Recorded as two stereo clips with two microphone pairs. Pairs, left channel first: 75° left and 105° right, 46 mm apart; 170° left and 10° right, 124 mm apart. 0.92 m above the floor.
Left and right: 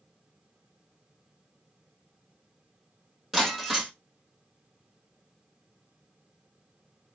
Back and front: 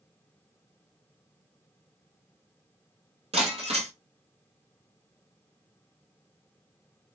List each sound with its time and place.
3.3 s breaking glass: 20° right, 1.6 m